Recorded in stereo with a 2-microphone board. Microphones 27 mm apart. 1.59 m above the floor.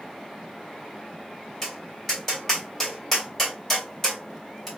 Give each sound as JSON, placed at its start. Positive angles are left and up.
{"t": 1.6, "sound": "tapping", "side_deg": 10, "distance_m": 1.5}